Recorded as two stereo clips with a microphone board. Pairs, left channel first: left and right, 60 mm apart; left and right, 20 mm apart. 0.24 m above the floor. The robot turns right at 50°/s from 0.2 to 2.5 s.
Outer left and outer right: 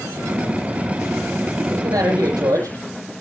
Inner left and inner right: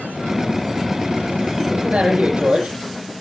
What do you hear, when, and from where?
1.7 s a man speaking: 105° right, 8.5 m; by 2.8 s 60° right, 8.5 m